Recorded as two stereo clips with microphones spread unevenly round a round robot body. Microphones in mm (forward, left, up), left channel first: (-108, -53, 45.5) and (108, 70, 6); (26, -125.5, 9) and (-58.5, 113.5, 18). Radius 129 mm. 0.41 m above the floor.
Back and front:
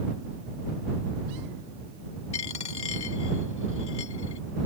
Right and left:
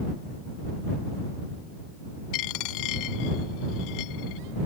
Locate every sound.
2.3 s a dropped coin: 85° right